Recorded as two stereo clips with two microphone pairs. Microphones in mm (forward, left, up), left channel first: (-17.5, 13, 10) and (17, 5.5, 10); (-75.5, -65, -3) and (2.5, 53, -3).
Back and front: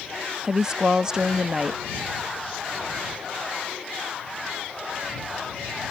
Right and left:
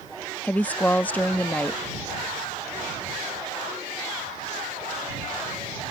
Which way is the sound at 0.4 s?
60° right.